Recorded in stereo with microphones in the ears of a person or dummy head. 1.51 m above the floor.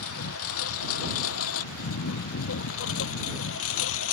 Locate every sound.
0.0 s a lawn mower: 85° left